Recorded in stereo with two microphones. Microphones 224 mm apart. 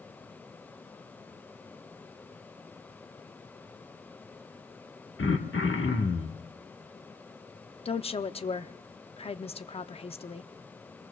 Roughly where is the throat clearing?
Left.